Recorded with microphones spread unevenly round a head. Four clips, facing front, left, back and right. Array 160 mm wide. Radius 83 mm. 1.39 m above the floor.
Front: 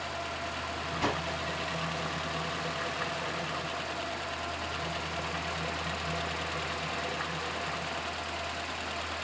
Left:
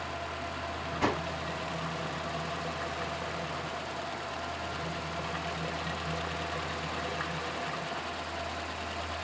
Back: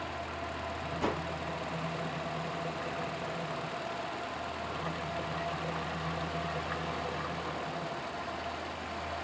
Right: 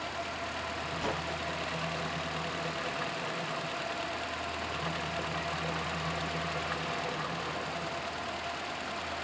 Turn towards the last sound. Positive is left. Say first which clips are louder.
# left 6 dB, front 2 dB
turn(degrees=80)